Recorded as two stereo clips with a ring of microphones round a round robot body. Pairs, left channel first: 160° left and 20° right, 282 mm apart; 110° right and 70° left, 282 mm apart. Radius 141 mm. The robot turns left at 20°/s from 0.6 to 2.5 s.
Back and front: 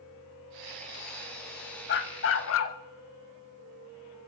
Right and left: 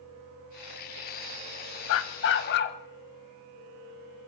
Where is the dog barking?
150° right, 0.9 m; by 2.8 s 165° right, 0.9 m.